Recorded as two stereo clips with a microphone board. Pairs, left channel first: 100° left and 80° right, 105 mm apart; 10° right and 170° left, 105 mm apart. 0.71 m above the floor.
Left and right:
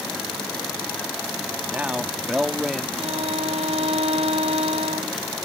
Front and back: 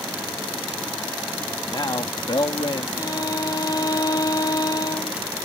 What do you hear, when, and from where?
1.7 s a man speaking: 15° right; by 2.9 s 15° left
3.0 s a violin: 60° right